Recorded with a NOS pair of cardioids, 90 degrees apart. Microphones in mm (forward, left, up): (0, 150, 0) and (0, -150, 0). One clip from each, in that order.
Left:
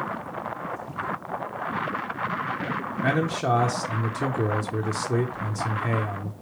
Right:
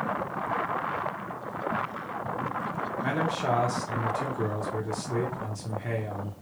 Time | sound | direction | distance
3.0 | a man speaking | 25° left | 0.7 m